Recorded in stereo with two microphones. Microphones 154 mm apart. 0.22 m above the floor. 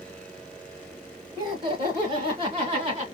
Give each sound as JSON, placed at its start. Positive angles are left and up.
{"t": 1.4, "sound": "laughter", "side_deg": -30, "distance_m": 3.0}